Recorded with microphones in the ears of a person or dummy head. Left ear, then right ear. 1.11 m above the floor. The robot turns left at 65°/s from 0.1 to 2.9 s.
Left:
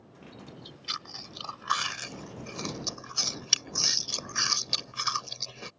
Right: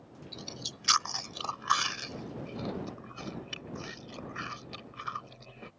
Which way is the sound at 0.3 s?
90° right.